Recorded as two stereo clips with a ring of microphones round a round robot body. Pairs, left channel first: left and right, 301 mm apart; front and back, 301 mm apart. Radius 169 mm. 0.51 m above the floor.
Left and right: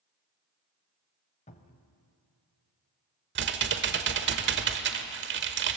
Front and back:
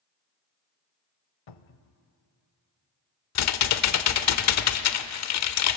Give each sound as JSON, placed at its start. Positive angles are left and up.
{"t": 1.5, "sound": "a cupboard door", "azimuth_deg": 20, "distance_m": 0.8}
{"t": 3.4, "sound": "typing on a keyboard", "azimuth_deg": -35, "distance_m": 1.0}